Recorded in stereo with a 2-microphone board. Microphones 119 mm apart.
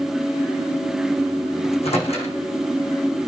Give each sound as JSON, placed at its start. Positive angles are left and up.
{"t": 1.6, "sound": "a microwave", "side_deg": 60, "distance_m": 6.0}